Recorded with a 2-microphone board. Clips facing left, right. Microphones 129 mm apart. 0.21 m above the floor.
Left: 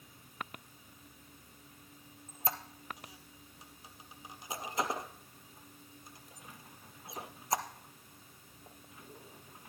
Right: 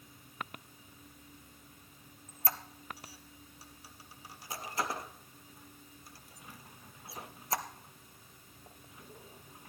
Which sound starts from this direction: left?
A squeak, at 2.3 s.